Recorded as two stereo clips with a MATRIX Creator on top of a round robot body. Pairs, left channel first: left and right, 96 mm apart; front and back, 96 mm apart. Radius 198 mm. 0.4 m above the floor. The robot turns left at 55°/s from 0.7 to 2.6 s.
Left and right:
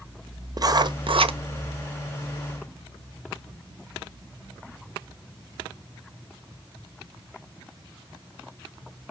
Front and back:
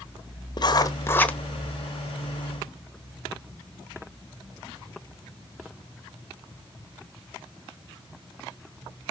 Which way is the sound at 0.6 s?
45° right.